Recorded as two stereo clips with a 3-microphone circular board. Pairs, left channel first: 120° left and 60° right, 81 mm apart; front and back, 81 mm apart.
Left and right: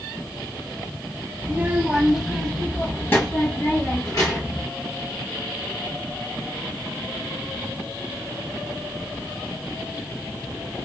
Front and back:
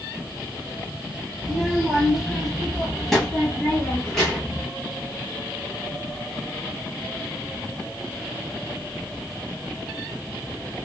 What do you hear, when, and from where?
1.4 s a child speaking: 105° right, 0.8 m; by 4.6 s 80° left, 1.4 m